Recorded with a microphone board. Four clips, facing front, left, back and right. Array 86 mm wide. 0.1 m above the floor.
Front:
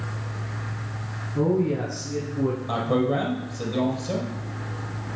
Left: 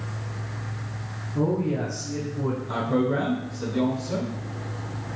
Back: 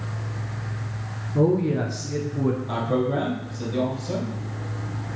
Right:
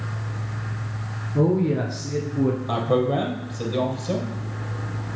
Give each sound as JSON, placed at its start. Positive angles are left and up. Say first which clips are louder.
{"t": 1.4, "sound": "a man speaking", "louder": "right 4 dB, back 2 dB", "azimuth_deg": -130, "distance_m": 1.4}
{"t": 2.7, "sound": "a man speaking", "louder": "right 3 dB, front 1 dB", "azimuth_deg": -70, "distance_m": 3.0}